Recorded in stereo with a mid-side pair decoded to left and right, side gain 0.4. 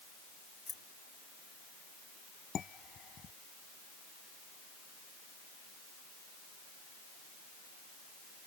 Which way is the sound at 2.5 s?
55° left.